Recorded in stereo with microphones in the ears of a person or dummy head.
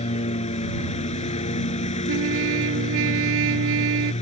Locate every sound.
0.0 s a lawn mower: 35° left (ahead or behind)
2.1 s a trumpet: 65° right (ahead or behind)